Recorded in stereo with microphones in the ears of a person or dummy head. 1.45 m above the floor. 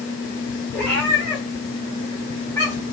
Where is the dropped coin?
I don't hear a dropped coin.